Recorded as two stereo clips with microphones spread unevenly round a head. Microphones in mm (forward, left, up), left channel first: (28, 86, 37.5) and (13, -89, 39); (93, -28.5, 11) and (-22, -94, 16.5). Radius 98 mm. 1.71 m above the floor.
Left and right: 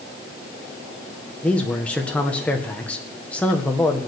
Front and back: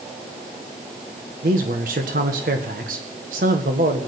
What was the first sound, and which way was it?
A man speaking, 170° left.